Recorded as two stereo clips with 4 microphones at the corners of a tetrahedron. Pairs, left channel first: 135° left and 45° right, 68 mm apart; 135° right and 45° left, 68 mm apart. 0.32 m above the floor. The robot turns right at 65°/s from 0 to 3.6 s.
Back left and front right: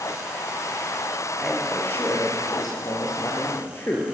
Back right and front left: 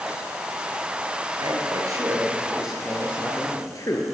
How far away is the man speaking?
About 5.5 m.